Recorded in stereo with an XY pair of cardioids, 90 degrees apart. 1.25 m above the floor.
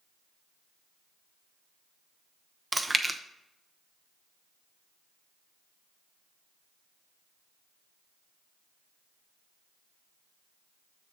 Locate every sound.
2.7 s chewing: 20° right, 0.8 m